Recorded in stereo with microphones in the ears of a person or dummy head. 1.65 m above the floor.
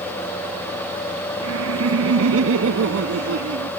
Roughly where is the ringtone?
No ringtone in this recording.